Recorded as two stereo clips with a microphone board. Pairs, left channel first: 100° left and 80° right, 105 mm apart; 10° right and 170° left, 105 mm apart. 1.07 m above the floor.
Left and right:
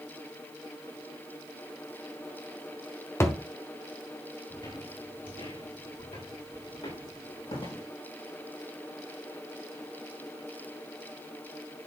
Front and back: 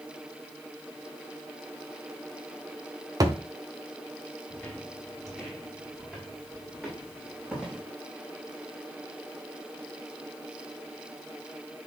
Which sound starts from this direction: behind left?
A thud, at 3.2 s.